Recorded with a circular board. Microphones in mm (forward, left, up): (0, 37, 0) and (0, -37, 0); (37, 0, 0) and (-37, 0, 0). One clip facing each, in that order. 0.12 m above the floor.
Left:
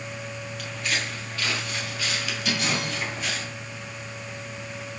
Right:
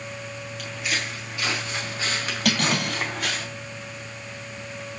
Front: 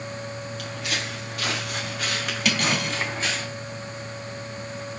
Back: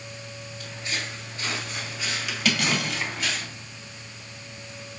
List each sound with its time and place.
0.6 s footsteps: straight ahead, 3.5 m; by 3.5 s 60° right, 3.5 m
2.5 s cutlery clinking: 85° right, 1.8 m